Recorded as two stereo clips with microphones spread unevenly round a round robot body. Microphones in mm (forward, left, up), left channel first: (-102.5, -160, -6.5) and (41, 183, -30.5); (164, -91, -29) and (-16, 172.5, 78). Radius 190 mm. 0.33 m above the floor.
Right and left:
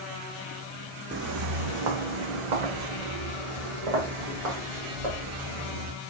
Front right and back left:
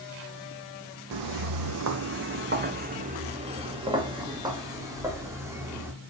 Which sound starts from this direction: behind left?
Footsteps, at 1.1 s.